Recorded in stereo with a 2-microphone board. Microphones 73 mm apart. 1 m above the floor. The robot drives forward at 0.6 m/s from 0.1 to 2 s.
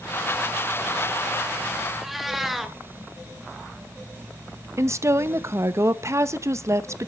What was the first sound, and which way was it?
A cat meowing, centre (ahead or behind).